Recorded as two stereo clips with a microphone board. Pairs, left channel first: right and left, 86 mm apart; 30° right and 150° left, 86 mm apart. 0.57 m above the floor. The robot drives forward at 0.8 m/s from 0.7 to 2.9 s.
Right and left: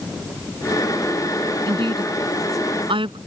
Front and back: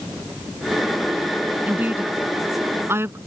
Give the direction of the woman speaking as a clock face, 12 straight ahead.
9 o'clock.